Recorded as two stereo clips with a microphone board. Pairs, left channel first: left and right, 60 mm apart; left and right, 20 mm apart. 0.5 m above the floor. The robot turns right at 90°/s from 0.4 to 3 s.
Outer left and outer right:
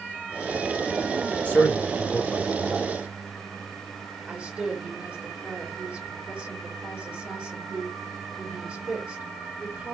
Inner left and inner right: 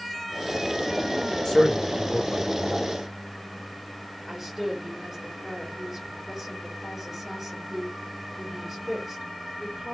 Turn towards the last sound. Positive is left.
turn(degrees=-25)  # may be behind; listen again after turning